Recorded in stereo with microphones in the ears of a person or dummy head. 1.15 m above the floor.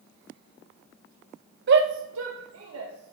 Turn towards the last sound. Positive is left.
turn(degrees=-80)